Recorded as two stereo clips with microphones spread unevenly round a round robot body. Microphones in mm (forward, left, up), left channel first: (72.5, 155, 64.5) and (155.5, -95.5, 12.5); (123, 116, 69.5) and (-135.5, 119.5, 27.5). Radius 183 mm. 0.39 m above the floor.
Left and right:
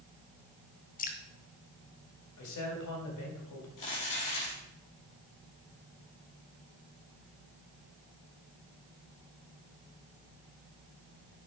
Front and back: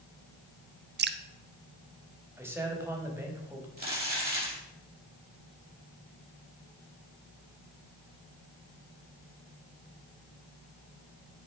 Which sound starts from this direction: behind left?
Crumpling, at 3.8 s.